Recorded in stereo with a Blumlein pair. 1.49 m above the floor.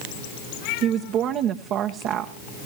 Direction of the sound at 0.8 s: 35° right.